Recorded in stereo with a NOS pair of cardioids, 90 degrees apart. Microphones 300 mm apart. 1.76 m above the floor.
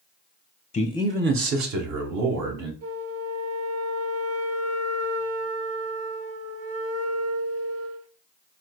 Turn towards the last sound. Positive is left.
turn(degrees=-55)